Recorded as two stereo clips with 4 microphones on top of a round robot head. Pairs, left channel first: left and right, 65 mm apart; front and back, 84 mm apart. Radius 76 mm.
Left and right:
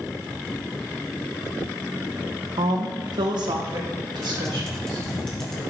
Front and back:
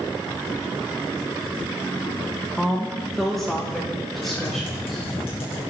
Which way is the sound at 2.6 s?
85° right.